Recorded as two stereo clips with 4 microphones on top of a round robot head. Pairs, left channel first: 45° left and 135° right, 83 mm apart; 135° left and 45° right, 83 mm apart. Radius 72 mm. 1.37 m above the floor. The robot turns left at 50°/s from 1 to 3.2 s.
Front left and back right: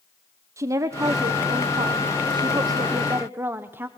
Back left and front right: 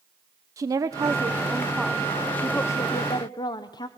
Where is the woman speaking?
85° right, 0.9 m; by 3.9 s 165° left, 0.9 m.